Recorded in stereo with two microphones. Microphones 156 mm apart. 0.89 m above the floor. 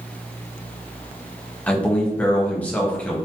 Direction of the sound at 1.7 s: 10° left (ahead or behind).